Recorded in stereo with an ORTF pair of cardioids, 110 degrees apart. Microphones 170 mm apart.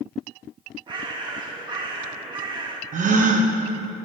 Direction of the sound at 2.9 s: 50° right.